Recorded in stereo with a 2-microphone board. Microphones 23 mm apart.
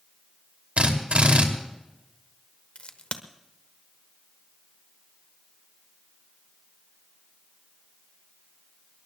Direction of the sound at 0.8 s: 65° right (ahead or behind).